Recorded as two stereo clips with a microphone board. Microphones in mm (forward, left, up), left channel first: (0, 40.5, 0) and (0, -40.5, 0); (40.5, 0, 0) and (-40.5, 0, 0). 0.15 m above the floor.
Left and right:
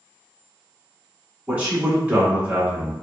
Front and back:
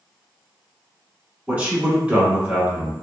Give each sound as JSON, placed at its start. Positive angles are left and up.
{"t": 1.5, "sound": "a man speaking", "azimuth_deg": -135, "distance_m": 1.1}